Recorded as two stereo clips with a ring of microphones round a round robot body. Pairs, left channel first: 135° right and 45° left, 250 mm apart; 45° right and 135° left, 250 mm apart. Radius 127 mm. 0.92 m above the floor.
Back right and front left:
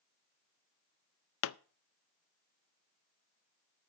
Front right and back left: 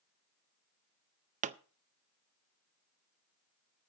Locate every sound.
1.4 s a pop: 165° right, 0.5 m